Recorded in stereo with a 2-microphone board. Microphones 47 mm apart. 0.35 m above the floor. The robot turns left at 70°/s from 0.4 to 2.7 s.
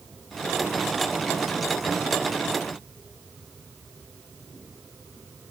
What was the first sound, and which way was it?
Only background noise.